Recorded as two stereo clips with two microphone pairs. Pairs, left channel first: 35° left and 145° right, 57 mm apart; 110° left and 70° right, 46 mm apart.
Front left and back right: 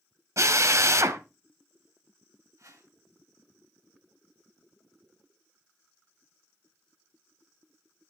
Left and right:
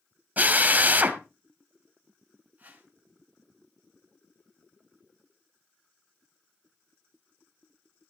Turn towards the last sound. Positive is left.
turn(degrees=-120)